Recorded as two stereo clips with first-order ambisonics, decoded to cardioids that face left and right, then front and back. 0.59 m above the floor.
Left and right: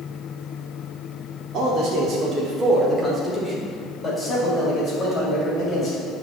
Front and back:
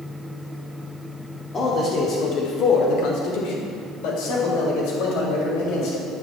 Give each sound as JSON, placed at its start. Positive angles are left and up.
{"t": 1.5, "sound": "a man speaking", "azimuth_deg": -60, "distance_m": 1.2}